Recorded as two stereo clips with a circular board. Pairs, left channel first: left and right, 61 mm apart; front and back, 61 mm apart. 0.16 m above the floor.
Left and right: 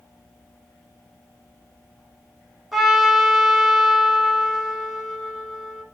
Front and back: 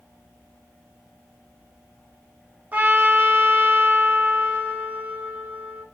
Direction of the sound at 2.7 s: 175° right.